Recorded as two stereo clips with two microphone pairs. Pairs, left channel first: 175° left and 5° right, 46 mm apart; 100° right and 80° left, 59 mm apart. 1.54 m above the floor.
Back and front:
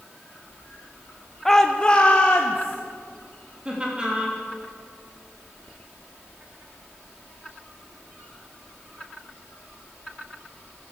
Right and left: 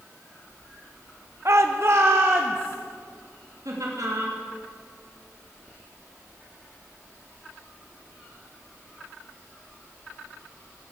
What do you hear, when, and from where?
1.4 s a shout: 90° left, 0.6 m; by 2.8 s 125° left, 1.2 m
3.6 s laughter: 65° left, 3 m